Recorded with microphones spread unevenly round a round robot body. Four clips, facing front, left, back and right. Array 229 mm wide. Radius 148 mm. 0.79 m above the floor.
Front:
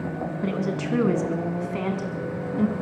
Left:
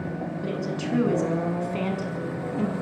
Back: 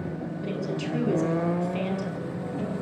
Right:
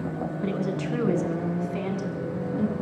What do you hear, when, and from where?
0.4 s a woman speaking: 10° left, 7 m; by 2.7 s 40° left, 7 m